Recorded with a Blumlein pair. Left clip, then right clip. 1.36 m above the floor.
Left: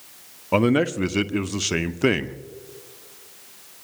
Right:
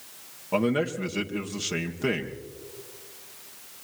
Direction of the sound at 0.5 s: 25° left.